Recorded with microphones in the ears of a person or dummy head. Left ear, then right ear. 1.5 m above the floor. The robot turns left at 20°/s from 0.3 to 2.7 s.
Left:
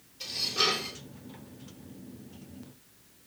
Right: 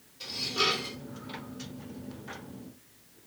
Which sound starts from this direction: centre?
Dishes clattering, at 0.2 s.